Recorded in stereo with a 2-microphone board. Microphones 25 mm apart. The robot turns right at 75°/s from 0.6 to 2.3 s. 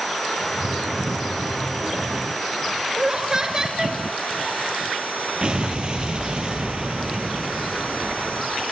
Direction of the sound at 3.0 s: 25° right (ahead or behind).